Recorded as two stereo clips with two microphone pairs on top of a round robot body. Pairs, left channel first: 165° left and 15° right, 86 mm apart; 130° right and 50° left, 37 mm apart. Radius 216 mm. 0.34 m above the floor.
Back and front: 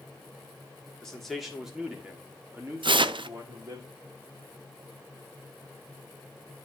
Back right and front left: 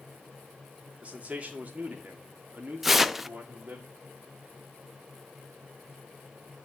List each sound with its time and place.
1.0 s a man speaking: 90° left, 1.9 m; by 3.8 s 25° left, 2 m
2.8 s tearing paper: 35° right, 0.6 m